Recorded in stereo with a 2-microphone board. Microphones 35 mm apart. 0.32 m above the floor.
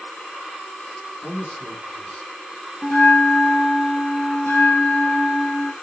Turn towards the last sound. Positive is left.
turn(degrees=60)  # may be behind; listen again after turning